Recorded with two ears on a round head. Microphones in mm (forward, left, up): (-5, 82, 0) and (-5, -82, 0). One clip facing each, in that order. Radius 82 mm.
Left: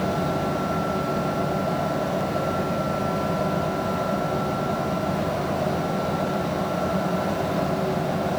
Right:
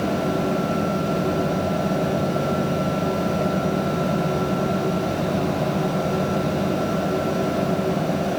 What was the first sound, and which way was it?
Only background noise.